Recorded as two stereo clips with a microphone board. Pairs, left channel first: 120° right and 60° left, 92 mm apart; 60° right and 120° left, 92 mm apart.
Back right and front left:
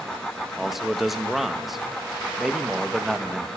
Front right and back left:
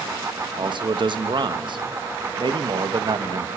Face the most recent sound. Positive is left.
turn(degrees=150)